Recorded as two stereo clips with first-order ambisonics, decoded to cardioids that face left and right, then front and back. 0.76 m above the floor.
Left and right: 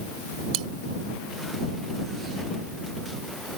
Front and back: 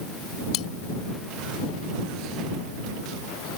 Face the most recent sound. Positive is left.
turn(degrees=-45)